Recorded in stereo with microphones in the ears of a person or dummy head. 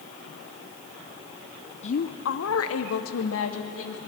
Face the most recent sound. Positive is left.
turn(degrees=70)  # may be behind; listen again after turning